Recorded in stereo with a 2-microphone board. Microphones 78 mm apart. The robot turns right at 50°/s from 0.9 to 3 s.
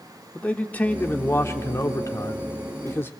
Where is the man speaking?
30° left, 1.2 m; by 3.1 s 135° left, 1.2 m.